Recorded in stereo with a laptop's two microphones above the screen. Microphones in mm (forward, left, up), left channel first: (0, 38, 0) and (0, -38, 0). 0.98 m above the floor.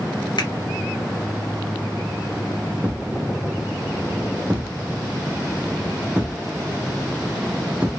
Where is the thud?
15° right (ahead or behind), 0.7 m.